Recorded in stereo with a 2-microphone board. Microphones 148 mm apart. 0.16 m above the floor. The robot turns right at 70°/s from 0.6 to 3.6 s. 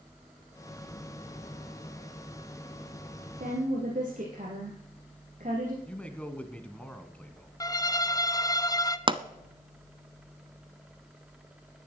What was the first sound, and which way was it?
A woman speaking, 70° right (ahead or behind).